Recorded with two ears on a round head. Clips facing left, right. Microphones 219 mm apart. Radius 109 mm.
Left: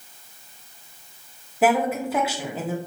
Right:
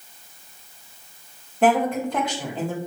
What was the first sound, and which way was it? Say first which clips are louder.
A woman speaking: right 1 dB; 5° left (ahead or behind).